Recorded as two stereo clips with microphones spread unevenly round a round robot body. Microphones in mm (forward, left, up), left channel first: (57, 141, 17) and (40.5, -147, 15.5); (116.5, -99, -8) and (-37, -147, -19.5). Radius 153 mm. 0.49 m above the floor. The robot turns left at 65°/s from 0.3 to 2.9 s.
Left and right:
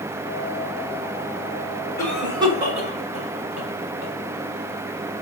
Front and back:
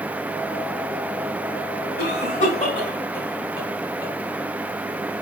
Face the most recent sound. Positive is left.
turn(degrees=-50)